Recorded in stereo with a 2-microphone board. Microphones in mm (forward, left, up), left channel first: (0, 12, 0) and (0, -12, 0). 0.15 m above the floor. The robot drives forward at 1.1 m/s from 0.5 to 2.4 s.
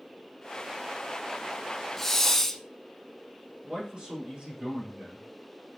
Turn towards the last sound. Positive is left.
turn(degrees=-50)  # may be behind; listen again after turning